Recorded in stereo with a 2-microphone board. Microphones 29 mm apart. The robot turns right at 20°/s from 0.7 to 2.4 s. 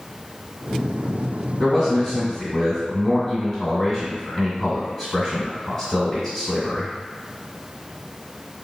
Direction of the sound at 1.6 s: 5° left (ahead or behind).